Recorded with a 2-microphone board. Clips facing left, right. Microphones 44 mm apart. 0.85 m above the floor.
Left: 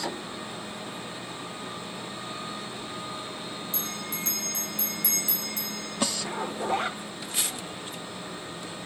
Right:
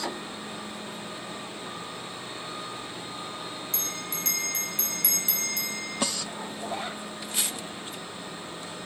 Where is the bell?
70° right (ahead or behind), 1.9 m.